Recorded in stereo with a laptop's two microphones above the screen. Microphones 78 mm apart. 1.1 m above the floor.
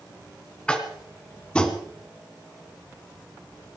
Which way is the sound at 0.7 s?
15° left (ahead or behind).